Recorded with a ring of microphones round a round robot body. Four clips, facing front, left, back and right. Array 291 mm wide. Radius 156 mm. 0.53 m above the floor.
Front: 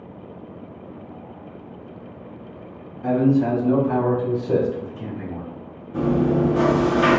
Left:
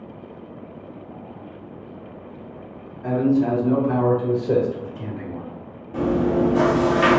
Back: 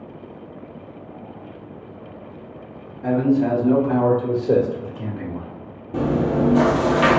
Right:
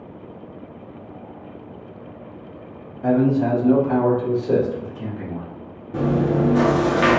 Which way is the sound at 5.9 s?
155° right.